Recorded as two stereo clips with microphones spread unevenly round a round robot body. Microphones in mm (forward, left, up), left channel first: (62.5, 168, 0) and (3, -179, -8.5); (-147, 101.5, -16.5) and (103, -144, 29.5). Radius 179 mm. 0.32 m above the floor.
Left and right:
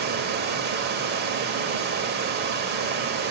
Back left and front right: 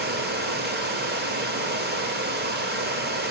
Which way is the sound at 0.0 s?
90° right.